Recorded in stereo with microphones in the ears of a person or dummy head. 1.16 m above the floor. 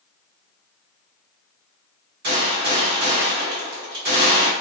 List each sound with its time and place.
2.2 s a gunshot: 60° right (ahead or behind), 1.1 m